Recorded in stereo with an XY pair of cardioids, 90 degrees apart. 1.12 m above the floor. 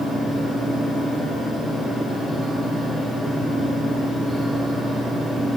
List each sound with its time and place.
0.0 s a fan: 40° left, 1.5 m